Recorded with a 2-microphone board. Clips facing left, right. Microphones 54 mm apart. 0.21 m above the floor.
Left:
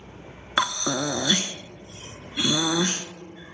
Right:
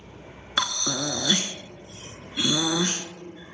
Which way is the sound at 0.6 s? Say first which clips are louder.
Left 3 dB; 20° left (ahead or behind).